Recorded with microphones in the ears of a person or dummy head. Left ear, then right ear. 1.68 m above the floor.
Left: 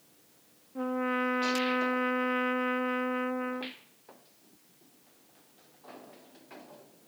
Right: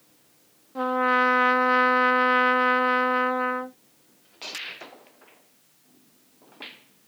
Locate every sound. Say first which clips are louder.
0.8 s a trumpet: right 10 dB; 25° right (ahead or behind)